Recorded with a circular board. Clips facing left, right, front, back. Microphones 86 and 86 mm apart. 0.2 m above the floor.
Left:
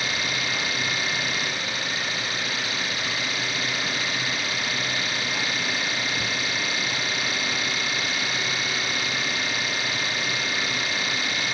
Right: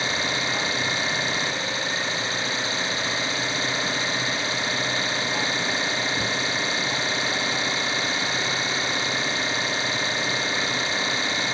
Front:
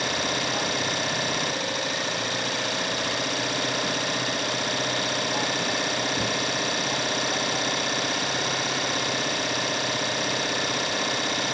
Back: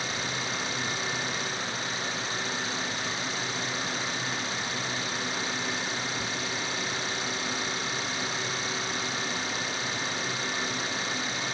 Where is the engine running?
25° right.